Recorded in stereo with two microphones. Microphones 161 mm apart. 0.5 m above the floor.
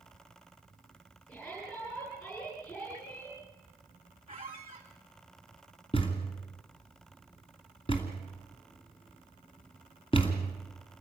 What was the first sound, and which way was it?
A shout, 20° left (ahead or behind).